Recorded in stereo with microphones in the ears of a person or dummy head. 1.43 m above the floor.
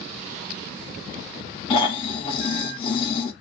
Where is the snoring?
30° left (ahead or behind), 0.6 m.